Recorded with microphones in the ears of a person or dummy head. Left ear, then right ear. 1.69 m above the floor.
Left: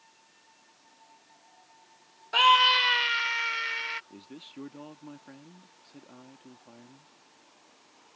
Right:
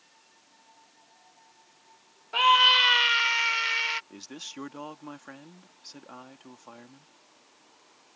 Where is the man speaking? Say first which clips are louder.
Right 6 dB; 45° right (ahead or behind).